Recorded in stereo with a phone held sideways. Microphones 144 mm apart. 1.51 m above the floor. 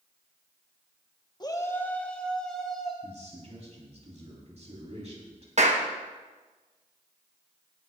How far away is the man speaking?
About 3 m.